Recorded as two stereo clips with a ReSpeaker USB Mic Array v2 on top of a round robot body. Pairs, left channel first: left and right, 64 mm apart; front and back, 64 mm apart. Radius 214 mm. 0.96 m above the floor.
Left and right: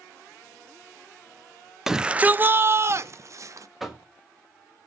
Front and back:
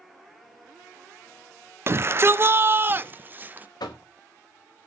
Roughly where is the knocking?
Ahead.